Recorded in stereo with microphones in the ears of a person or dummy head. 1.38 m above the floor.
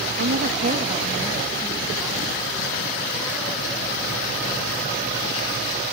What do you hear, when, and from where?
0.2 s a woman speaking: 70° right (ahead or behind); by 5.8 s 5° left (ahead or behind)